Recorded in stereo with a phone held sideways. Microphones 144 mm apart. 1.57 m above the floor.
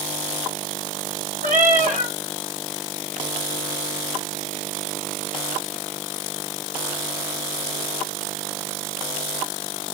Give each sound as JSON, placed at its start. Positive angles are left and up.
{"t": 1.4, "sound": "a cat meowing", "side_deg": -65, "distance_m": 3.5}